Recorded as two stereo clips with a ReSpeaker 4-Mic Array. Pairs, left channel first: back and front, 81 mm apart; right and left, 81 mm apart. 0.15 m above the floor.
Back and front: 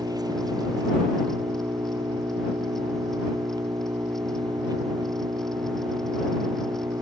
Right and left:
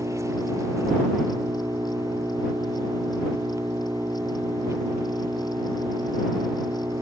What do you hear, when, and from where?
0.0 s an engine running: 40° left